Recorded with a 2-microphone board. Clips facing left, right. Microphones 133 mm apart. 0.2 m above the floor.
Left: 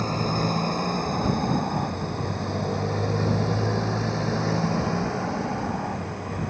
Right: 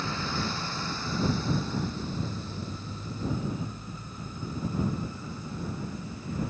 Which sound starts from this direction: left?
A motorcycle, at 0.0 s.